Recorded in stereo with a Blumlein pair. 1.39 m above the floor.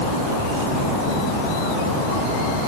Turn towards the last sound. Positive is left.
No sound to turn to.